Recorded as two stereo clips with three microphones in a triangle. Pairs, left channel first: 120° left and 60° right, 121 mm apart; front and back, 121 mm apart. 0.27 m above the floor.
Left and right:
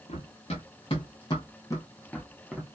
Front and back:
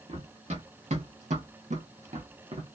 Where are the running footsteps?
150° left, 1.4 m; by 2.6 s 145° right, 0.9 m.